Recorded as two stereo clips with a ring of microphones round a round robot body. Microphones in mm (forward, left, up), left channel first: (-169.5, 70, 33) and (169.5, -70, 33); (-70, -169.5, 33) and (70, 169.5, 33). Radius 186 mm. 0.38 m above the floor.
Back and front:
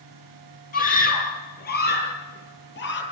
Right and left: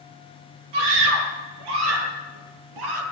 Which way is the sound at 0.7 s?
90° left.